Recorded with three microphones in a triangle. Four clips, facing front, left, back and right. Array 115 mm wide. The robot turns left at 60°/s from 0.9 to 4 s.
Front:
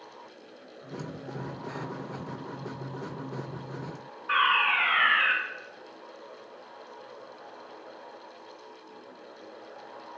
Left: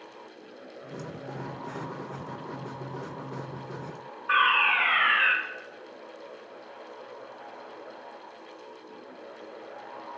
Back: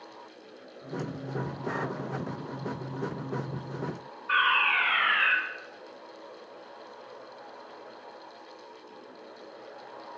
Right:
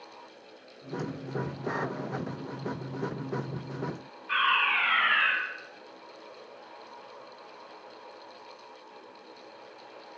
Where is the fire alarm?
60° left, 2.5 m.